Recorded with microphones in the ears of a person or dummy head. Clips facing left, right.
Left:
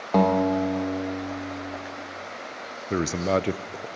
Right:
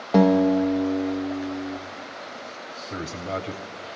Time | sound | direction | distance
0.1 | a guitar | 10° right (ahead or behind) | 0.9 m
2.9 | a man speaking | 55° left (ahead or behind) | 0.5 m